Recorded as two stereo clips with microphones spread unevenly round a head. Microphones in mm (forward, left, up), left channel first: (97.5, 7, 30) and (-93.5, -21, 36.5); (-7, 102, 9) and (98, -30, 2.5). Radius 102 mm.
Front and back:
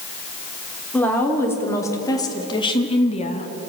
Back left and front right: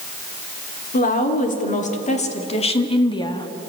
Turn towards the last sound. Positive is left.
turn(degrees=60)